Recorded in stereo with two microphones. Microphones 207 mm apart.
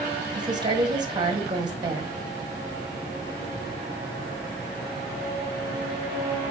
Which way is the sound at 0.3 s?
20° right (ahead or behind).